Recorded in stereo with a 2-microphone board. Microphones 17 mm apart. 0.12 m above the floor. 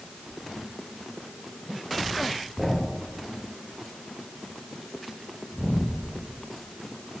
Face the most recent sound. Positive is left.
turn(degrees=-25)  # may be behind; listen again after turning